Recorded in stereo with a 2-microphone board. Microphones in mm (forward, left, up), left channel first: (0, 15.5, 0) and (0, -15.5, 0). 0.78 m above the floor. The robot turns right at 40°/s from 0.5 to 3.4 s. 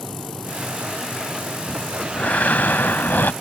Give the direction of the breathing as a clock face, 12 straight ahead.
11 o'clock.